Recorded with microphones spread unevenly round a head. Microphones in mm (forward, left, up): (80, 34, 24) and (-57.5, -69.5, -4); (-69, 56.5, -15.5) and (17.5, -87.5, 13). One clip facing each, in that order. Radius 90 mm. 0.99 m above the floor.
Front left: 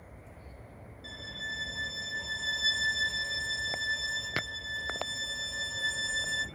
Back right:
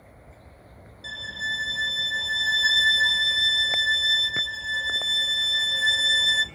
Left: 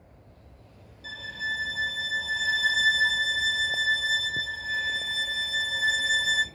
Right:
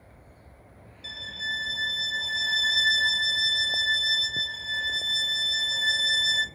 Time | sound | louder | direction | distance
1.0 | a violin | back right 6 dB, left 2 dB | 135° right | 1.3 m